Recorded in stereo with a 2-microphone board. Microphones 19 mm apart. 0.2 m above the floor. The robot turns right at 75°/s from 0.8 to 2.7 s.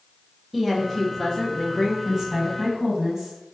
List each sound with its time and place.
0.5 s a woman speaking: straight ahead, 1.2 m; by 1.9 s 85° left, 1.2 m
2.0 s a woman speaking: 25° right (ahead or behind), 1.4 m